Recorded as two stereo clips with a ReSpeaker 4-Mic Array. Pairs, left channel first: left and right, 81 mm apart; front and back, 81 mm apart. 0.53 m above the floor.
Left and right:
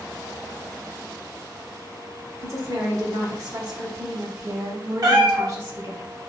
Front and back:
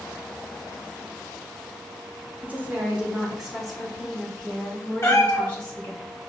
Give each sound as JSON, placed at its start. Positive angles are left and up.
{"t": 2.4, "sound": "a woman speaking", "azimuth_deg": -120, "distance_m": 1.5}
{"t": 5.0, "sound": "a cat meowing", "azimuth_deg": -55, "distance_m": 0.9}